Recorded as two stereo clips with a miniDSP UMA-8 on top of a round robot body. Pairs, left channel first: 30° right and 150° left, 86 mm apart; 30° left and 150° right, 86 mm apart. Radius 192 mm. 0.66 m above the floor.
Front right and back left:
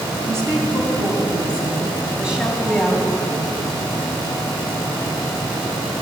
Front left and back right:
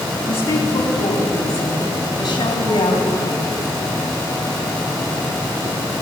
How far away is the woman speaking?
About 6 m.